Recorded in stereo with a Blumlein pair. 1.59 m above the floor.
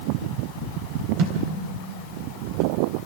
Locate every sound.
1.2 s a thud: 40° right, 3.5 m